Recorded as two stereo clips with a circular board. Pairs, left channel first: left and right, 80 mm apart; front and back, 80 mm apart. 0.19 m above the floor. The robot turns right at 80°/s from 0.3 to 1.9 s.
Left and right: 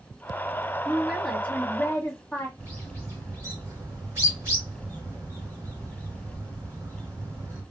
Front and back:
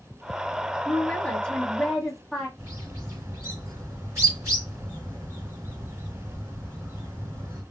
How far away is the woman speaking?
About 1.2 m.